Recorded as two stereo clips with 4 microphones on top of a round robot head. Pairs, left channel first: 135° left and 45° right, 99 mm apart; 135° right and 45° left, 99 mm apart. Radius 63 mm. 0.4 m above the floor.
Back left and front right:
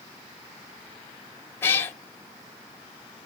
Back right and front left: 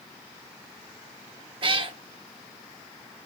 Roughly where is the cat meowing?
Left.